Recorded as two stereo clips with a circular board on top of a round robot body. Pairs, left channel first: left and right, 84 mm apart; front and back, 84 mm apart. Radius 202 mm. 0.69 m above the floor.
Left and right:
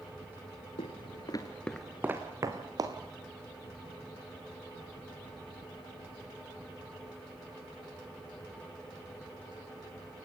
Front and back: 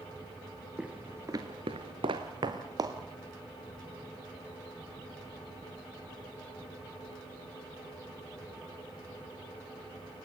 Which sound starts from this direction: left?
Footsteps, at 0.8 s.